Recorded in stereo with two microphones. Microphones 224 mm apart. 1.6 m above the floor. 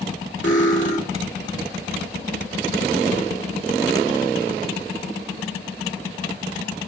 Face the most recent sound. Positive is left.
turn(degrees=60)  # may be behind; listen again after turning